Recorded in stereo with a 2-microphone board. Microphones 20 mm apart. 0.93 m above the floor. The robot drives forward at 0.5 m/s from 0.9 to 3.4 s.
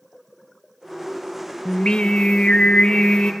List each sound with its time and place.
1.6 s singing: 55° left (ahead or behind), 0.9 m; by 3.3 s 50° left (ahead or behind), 1.0 m